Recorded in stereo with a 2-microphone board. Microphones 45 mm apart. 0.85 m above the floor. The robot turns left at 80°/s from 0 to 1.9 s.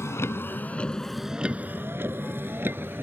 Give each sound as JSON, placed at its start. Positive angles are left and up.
{"t": 0.0, "sound": "a vehicle", "side_deg": 80}